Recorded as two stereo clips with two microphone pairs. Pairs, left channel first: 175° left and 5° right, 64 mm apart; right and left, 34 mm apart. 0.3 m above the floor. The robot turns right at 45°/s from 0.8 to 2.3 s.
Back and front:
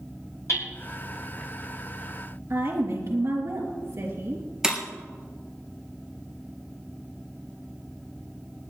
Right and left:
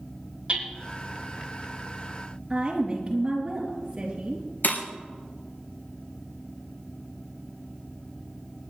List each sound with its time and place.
0.5 s hammering: 140° left, 7 m
2.5 s a woman speaking: 20° left, 4.5 m
4.6 s breaking glass: 85° right, 3 m